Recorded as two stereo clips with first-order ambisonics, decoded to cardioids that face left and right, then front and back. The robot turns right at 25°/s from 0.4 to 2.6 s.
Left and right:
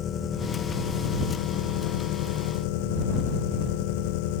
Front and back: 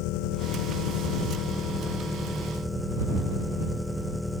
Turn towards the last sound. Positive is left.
turn(degrees=90)